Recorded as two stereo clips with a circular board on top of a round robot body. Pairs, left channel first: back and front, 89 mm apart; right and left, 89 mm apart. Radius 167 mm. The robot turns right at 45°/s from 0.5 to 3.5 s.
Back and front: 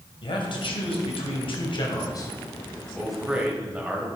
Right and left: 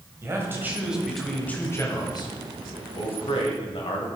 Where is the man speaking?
155° left, 2.5 m; by 4.1 s 70° right, 2.5 m.